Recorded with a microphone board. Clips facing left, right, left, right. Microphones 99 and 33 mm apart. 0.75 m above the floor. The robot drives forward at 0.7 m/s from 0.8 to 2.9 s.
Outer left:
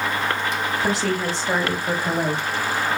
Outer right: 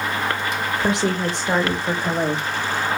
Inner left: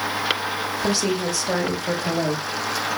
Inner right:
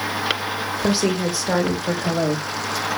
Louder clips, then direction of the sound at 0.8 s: Outer right 3 dB, inner right 3 dB; 20° right (ahead or behind).